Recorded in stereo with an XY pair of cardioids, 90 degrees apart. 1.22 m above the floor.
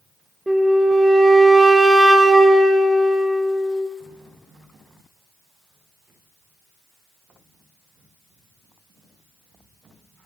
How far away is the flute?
About 0.6 m.